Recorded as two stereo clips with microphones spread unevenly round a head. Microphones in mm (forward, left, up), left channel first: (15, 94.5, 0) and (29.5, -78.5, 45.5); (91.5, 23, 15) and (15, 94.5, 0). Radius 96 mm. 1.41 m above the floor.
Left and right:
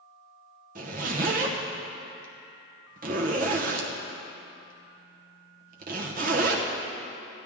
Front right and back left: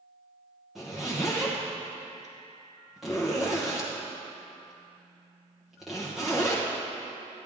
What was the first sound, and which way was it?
A zipper, 135° right.